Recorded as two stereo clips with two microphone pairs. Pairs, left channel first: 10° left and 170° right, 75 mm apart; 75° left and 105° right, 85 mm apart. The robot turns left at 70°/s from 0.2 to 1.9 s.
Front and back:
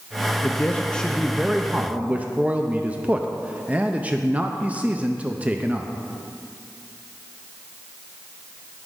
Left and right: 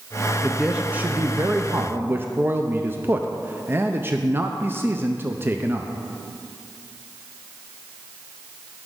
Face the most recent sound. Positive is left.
turn(degrees=-125)